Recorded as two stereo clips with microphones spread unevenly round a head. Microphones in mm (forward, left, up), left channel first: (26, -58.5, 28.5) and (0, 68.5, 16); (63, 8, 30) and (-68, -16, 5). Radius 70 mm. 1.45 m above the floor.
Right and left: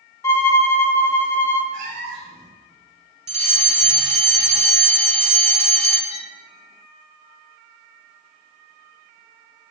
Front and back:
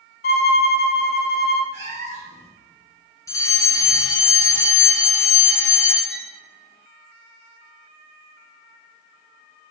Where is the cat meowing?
140° left, 3 m.